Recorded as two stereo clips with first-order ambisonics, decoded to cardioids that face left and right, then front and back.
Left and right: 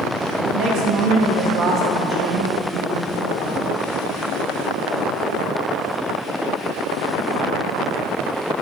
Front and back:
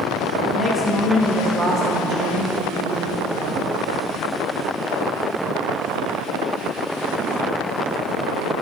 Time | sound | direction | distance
0.5 | a woman speaking | 70° right | 1.3 m